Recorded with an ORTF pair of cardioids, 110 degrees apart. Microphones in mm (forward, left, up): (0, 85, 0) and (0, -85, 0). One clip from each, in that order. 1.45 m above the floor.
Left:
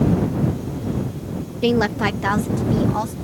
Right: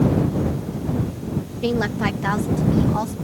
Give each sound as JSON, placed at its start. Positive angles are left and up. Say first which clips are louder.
{"t": 1.6, "sound": "a woman speaking", "louder": "left 4 dB", "azimuth_deg": 30}